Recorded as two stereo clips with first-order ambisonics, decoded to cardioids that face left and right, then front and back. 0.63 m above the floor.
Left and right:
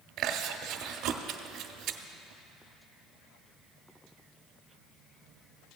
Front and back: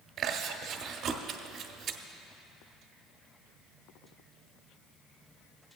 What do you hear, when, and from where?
0.2 s chewing: 125° right, 0.6 m